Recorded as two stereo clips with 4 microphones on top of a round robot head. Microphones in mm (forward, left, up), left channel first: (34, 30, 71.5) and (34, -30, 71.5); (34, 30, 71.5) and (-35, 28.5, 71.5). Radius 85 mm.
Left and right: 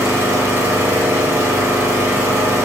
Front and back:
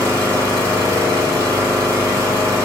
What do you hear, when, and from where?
0.0 s an engine running: 50° right, 1.8 m